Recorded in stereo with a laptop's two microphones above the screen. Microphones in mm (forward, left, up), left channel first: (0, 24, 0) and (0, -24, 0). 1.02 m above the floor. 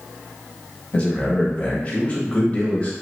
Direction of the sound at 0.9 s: 30° left (ahead or behind).